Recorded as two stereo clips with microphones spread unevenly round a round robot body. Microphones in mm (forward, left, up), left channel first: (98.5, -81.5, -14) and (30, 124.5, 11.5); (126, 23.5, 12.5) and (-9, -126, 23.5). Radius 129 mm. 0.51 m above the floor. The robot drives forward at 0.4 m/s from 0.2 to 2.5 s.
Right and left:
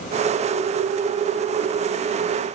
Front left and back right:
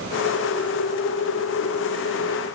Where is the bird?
I don't hear a bird.